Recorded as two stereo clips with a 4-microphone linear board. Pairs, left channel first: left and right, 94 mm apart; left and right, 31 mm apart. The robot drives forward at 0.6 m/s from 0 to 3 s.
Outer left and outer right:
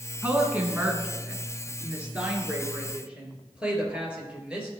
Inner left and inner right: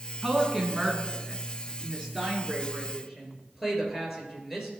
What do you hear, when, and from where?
0.2 s a woman speaking: 20° right (ahead or behind), 1.5 m; by 4.7 s 10° right (ahead or behind), 2.5 m